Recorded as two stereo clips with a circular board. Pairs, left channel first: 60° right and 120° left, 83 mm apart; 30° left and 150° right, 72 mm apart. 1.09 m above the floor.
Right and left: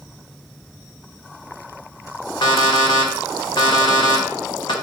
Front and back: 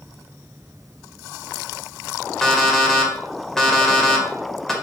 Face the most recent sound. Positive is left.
turn(degrees=-55)